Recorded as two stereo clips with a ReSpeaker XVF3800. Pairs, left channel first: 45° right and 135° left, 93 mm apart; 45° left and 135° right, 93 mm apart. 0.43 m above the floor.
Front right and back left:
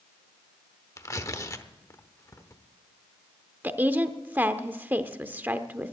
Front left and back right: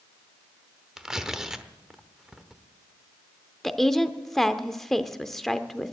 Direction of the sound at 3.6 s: 125° left.